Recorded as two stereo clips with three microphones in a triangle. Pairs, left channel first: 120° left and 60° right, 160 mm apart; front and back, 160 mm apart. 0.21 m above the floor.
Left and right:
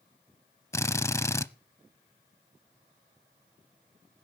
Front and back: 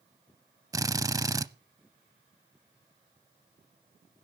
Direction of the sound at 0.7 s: 160° left.